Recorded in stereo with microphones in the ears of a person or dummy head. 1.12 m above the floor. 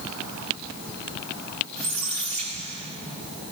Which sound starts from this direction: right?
A squeak, at 1.8 s.